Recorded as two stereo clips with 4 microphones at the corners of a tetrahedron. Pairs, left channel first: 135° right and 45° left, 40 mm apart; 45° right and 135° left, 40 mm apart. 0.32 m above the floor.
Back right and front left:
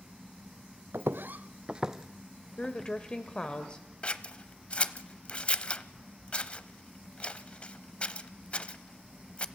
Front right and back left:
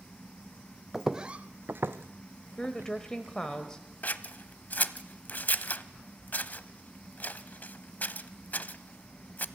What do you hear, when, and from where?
0.9 s footsteps: 50° left, 0.9 m; by 3.6 s 155° left, 2.5 m
2.6 s a woman speaking: 95° right, 1.2 m
4.0 s scissors: 75° right, 0.8 m